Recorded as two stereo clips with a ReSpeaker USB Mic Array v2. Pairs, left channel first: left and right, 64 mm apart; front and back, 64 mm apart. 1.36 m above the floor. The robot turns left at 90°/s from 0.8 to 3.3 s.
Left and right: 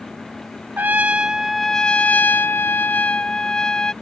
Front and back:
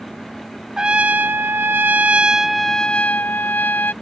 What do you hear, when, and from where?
0.8 s a trumpet: 110° right; by 3.9 s 25° left